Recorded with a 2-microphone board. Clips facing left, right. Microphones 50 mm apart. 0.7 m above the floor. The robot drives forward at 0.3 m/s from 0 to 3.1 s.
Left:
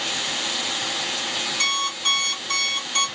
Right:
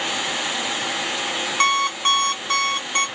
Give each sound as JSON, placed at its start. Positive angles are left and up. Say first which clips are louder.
{"t": 1.6, "sound": "an alarm clock", "louder": "right 7 dB", "side_deg": -45, "distance_m": 1.3}